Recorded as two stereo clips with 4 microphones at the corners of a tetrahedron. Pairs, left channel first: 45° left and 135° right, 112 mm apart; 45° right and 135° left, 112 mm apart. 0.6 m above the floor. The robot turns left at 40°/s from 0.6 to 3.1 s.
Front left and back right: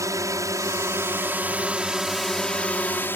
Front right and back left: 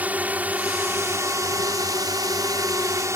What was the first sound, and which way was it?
A drone, 160° right.